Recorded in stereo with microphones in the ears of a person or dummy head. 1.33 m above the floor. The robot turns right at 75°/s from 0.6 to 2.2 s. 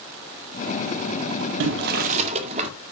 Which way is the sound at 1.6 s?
80° right.